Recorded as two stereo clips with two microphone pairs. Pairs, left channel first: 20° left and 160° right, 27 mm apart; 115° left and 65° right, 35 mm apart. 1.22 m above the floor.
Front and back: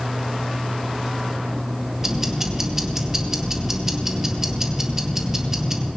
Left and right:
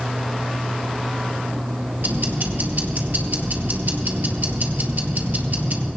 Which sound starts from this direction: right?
Ticking, at 2.0 s.